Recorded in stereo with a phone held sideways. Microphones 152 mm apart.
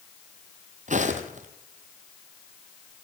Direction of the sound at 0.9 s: 55° right (ahead or behind).